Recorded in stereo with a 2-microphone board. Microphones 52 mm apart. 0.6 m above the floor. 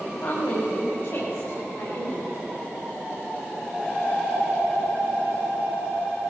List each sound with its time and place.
0.2 s a woman speaking: 65° left (ahead or behind), 2.5 m; by 2.3 s 80° left, 3.5 m